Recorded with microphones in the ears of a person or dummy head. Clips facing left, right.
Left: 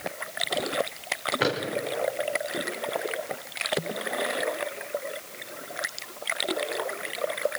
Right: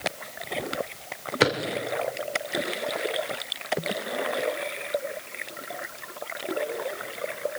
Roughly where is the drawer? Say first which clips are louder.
Right 4 dB; right.